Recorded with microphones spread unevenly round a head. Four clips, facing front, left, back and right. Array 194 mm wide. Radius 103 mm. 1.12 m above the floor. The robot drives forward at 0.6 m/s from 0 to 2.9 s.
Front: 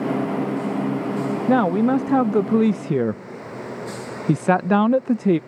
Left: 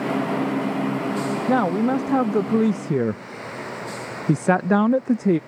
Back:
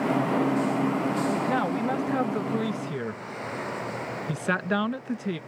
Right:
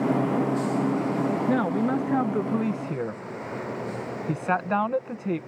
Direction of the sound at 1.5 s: 10° left.